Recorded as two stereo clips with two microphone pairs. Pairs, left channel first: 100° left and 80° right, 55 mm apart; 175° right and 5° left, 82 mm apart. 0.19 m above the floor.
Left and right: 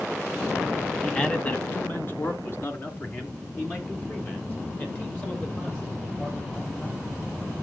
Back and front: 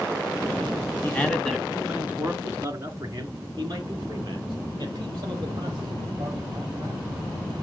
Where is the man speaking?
160° left, 1.2 m; by 7.2 s 50° left, 7.5 m.